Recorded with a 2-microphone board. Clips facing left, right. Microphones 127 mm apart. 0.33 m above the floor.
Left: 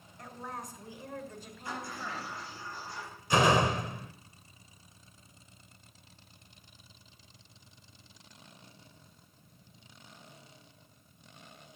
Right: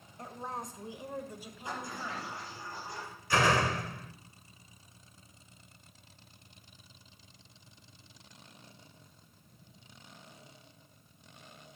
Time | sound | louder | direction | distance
0.2 | a woman speaking | right 2 dB | 30° right (ahead or behind) | 1.8 m
1.6 | a sliding door | even | 20° right (ahead or behind) | 8.5 m
3.3 | a door slam | left 3 dB | 20° left (ahead or behind) | 0.6 m